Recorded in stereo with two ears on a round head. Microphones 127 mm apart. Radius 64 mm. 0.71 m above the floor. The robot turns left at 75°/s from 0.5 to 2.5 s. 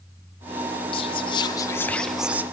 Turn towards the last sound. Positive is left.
turn(degrees=-25)